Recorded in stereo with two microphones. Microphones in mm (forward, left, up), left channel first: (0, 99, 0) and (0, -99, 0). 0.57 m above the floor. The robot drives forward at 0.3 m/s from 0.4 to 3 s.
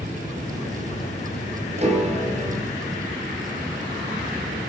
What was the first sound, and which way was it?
A piano, 35° right (ahead or behind).